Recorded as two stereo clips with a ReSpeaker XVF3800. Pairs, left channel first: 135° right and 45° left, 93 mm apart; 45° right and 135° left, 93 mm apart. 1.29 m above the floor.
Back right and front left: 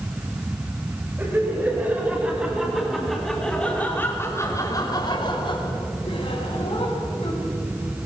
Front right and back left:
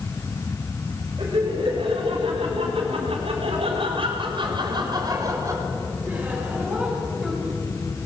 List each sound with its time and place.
1.2 s laughter: 110° left, 6.5 m; by 7.5 s 140° right, 6 m